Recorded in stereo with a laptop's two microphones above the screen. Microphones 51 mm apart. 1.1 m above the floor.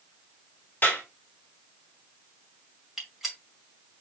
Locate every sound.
0.8 s a clap: 45° left (ahead or behind), 1.5 m
3.0 s a gunshot: 10° right (ahead or behind), 2 m